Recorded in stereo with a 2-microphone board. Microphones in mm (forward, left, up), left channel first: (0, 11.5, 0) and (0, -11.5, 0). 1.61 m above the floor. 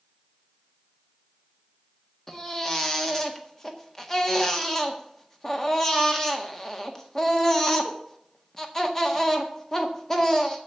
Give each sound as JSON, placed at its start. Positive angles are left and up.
{"t": 2.3, "sound": "a baby crying", "side_deg": 20, "distance_m": 1.5}